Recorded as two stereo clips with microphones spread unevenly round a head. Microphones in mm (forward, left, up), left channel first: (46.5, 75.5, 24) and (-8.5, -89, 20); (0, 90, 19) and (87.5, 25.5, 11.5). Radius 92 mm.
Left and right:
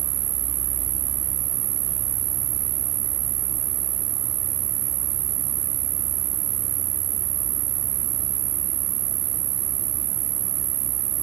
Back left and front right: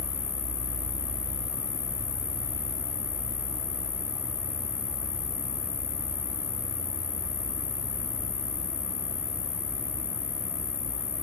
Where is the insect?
160° right.